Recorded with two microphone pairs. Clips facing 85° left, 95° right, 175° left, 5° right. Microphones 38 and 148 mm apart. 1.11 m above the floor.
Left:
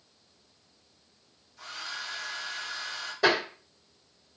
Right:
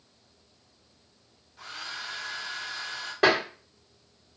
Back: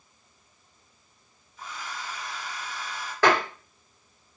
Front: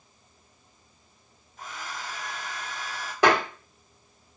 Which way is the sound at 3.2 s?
80° right.